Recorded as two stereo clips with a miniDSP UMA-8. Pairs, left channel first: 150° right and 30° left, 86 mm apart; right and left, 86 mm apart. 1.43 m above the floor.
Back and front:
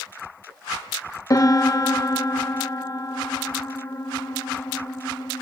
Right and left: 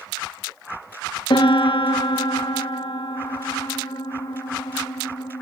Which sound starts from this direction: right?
A piano, at 1.3 s.